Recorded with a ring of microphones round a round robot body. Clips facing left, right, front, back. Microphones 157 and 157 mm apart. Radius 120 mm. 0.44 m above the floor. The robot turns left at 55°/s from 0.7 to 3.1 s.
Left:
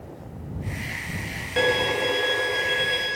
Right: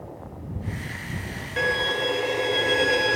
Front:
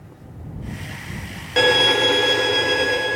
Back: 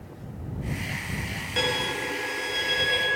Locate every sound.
1.6 s a violin: 30° left; by 3.2 s 55° right